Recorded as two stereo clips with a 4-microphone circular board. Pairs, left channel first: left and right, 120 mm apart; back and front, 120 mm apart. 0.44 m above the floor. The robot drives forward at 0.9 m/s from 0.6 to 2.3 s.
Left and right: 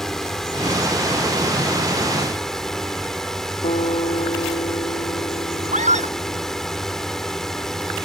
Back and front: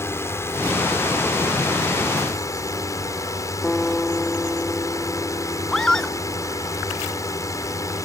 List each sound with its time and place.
0.0 s a drone: 170° left; by 8.1 s 175° left
3.6 s a guitar: 100° left
5.7 s a scream: 95° right